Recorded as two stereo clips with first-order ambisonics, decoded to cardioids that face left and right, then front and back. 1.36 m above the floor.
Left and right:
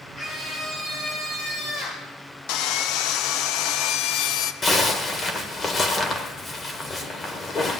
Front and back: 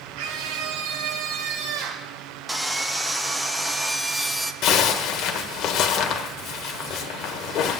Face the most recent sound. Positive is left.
turn(degrees=25)